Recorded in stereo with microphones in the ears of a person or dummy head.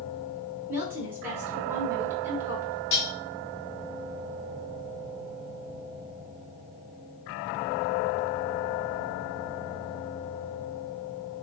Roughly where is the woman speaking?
Right.